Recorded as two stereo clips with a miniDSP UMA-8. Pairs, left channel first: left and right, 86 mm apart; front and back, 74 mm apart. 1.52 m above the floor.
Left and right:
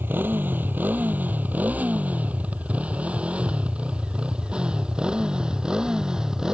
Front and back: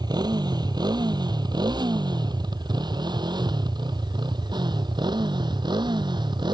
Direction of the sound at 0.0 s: 160° right.